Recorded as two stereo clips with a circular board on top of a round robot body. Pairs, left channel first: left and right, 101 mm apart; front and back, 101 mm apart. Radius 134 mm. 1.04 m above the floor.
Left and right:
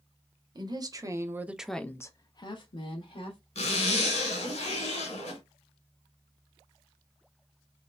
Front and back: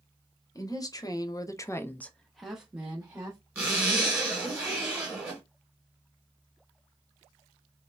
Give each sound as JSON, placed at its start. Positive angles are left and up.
{"t": 0.6, "sound": "a woman speaking", "azimuth_deg": -50, "distance_m": 0.9}
{"t": 3.5, "sound": "a zipper", "azimuth_deg": 105, "distance_m": 1.3}